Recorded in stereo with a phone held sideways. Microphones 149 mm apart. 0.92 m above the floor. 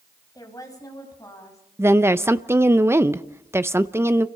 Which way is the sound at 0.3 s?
25° left (ahead or behind).